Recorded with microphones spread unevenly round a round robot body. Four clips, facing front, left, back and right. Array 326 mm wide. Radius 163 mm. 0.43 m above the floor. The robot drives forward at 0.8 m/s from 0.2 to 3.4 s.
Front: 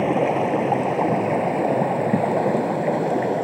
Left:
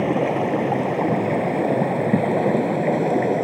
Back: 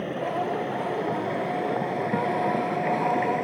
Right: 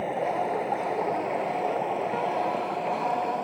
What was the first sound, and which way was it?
Running water, 60° left.